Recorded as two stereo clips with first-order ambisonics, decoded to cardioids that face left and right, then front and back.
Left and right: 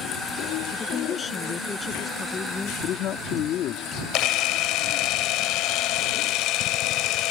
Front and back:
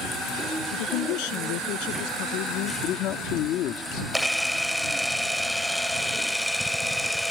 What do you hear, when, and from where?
0.7 s a woman speaking: 15° left
2.8 s a man speaking: 40° left
4.1 s a camera shutter: 85° left